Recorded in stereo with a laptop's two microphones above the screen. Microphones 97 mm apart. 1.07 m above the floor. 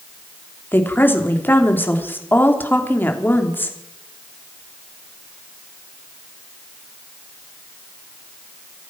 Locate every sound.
0.7 s a woman speaking: 20° left (ahead or behind), 3 m